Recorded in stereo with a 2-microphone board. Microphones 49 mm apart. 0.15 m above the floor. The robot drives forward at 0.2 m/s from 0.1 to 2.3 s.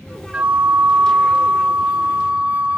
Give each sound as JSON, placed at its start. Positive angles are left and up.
{"t": 0.3, "sound": "a flute", "side_deg": -20, "distance_m": 0.9}